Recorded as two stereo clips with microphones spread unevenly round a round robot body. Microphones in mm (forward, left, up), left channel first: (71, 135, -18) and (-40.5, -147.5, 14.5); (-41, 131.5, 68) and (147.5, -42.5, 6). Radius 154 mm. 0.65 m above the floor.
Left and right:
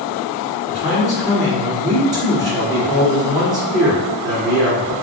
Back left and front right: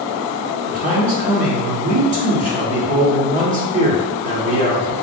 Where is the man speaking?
20° right, 1.6 m.